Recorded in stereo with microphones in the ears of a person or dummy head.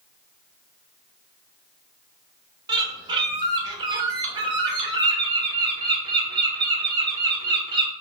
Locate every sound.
2.7 s a bird: 20° right (ahead or behind), 0.6 m